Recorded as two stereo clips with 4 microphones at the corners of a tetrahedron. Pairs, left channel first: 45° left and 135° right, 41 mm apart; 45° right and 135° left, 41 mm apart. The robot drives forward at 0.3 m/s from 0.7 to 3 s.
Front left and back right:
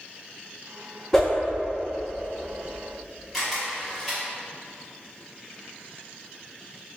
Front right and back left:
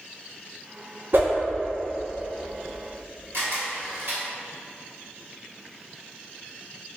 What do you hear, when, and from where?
1.1 s a whoosh: 125° left, 0.7 m
3.3 s a camera shutter: 140° left, 1.1 m